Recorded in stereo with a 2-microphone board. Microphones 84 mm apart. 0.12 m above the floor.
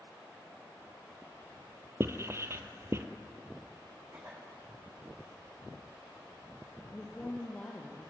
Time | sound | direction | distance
2.0 | writing | 30° right (ahead or behind) | 1.5 m
4.1 | a cough | 30° right (ahead or behind) | 9 m
6.9 | a woman speaking | 15° left (ahead or behind) | 2.5 m